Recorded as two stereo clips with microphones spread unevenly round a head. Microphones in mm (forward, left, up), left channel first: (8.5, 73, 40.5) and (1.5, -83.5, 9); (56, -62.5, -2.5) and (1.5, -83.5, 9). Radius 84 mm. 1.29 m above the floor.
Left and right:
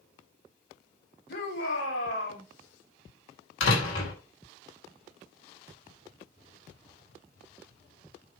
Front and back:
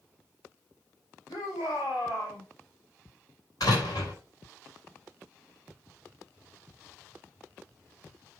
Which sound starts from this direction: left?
A door slam, at 3.6 s.